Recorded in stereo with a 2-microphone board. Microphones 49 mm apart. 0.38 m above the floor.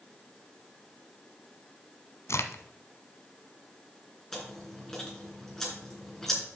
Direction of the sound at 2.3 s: 70° left (ahead or behind).